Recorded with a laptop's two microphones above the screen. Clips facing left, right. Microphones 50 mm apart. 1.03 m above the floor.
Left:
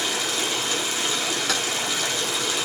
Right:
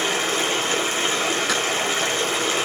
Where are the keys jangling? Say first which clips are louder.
Right 1 dB; 10° right (ahead or behind), 2.5 m.